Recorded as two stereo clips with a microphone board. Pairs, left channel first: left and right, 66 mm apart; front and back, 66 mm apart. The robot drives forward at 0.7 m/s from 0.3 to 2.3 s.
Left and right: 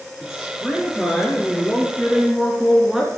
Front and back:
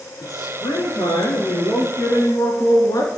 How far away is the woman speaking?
About 3.5 m.